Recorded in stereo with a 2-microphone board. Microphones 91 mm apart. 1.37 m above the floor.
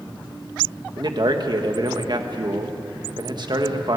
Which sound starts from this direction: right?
A man speaking, at 1.0 s.